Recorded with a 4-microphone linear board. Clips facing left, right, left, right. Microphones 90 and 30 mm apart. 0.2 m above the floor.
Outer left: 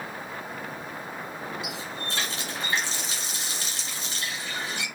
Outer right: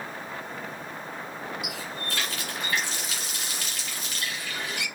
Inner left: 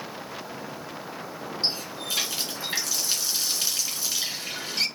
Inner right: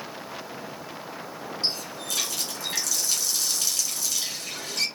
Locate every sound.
1.6 s a running tap: 30° left (ahead or behind), 1.4 m